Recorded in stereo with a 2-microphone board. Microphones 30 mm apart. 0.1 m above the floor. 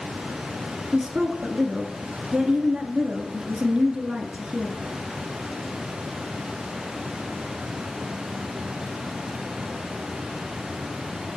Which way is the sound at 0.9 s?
25° right (ahead or behind).